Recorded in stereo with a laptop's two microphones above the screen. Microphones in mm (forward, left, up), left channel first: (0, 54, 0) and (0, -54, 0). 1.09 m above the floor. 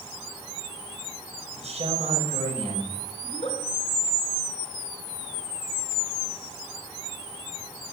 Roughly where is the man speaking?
Right.